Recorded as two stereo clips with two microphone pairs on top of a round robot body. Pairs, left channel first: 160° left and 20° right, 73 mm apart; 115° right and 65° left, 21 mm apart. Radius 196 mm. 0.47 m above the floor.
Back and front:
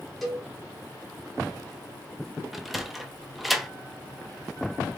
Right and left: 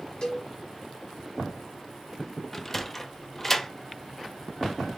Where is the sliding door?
115° right, 0.9 m.